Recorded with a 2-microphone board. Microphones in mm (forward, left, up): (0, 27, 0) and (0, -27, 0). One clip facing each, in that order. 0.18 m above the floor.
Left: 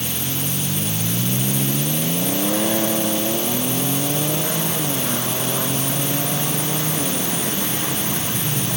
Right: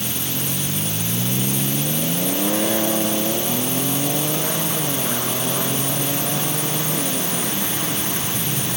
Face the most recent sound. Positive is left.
No sound to turn to.